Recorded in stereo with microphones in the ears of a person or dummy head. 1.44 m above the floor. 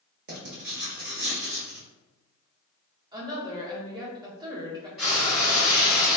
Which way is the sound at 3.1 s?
20° right (ahead or behind).